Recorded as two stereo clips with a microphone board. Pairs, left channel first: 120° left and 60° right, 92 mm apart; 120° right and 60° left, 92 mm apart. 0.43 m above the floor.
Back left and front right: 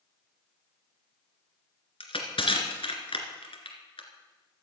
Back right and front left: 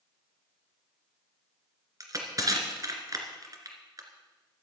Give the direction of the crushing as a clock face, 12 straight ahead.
8 o'clock.